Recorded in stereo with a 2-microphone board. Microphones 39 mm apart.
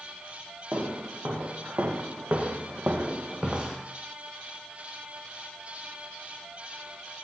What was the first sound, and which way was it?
Footsteps, 75° right (ahead or behind).